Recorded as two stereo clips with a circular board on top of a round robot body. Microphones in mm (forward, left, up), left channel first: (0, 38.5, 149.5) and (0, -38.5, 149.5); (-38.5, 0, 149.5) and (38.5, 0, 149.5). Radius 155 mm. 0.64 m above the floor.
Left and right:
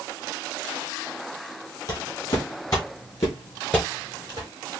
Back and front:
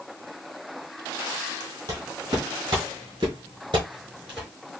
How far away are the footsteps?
About 1.3 m.